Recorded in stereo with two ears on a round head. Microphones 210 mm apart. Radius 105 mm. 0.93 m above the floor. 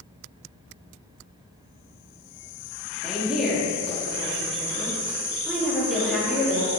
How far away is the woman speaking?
About 1.7 m.